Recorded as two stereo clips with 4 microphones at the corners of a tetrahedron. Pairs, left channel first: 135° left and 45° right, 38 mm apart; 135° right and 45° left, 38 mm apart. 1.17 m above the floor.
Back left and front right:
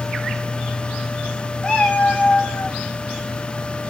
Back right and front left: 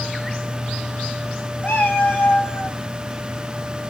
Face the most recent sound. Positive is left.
turn(degrees=-160)